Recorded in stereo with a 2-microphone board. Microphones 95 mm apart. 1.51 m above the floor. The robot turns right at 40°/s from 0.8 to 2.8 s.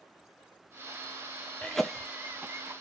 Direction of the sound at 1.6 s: 10° left (ahead or behind).